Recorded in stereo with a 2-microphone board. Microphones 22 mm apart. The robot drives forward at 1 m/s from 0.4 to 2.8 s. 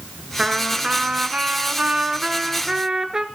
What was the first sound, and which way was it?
A trumpet, 40° right (ahead or behind).